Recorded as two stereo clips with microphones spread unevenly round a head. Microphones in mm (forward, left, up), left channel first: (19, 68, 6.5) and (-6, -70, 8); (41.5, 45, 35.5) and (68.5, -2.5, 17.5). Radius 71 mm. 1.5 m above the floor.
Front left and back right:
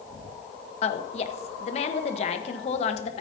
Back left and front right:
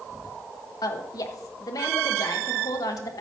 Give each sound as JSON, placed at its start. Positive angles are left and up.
{"t": 0.8, "sound": "a woman speaking", "azimuth_deg": 130, "distance_m": 1.0}